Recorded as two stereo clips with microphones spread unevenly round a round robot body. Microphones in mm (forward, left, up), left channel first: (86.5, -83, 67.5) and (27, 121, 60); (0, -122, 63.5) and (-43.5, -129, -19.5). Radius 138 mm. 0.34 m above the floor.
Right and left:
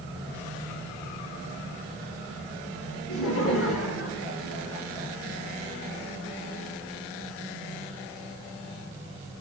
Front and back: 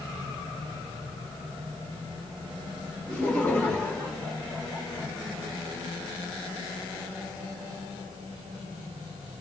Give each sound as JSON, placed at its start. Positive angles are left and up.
{"t": 3.1, "sound": "laughter", "azimuth_deg": -90, "distance_m": 4.5}